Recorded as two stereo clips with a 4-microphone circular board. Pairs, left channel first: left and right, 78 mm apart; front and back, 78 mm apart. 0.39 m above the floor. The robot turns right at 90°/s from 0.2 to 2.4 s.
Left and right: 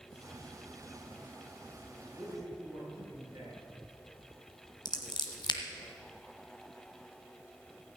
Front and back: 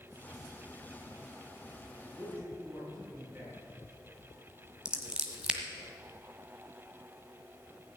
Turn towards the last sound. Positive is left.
turn(degrees=100)